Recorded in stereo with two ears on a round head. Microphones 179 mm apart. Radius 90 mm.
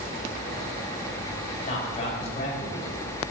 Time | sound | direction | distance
1.7 | a man speaking | 35° left (ahead or behind) | 3.5 m